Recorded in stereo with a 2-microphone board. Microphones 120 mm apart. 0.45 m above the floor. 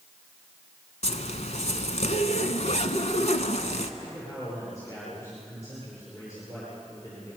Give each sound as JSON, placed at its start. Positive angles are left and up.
{"t": 1.0, "sound": "a zipper", "side_deg": 70, "distance_m": 1.2}
{"t": 4.0, "sound": "a man speaking", "side_deg": 25, "distance_m": 8.5}